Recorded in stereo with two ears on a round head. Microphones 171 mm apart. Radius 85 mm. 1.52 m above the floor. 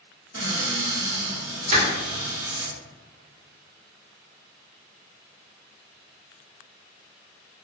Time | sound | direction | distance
0.3 | a cupboard door | 55° right (ahead or behind) | 1.5 m
1.7 | crushing | 40° right (ahead or behind) | 1.0 m